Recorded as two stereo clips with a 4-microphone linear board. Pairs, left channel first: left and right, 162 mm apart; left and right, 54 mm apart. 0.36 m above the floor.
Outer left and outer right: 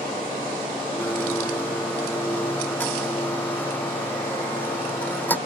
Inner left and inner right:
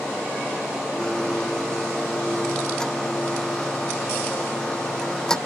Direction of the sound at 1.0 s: 10° left (ahead or behind).